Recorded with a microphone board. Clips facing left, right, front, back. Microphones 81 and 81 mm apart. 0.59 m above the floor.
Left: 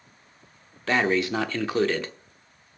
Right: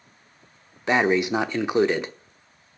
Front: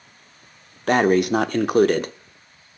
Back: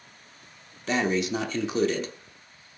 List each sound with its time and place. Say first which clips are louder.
0.9 s breathing: right 3 dB, front 8 dB; 20° right, 0.7 m